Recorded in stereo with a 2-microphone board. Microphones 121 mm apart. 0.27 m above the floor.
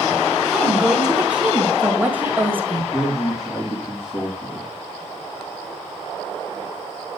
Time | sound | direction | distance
0.5 | a woman speaking | 5° right (ahead or behind) | 1.5 m
2.9 | a man speaking | 30° left (ahead or behind) | 3 m